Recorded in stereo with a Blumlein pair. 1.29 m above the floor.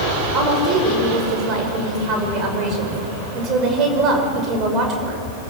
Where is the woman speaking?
35° right, 5.5 m.